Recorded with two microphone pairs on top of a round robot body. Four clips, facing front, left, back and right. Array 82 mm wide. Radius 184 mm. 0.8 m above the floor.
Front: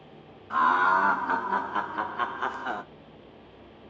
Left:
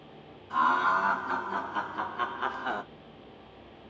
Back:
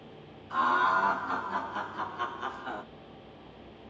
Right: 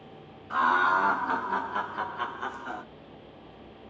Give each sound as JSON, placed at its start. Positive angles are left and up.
{"t": 0.5, "sound": "laughter", "azimuth_deg": -40, "distance_m": 1.5}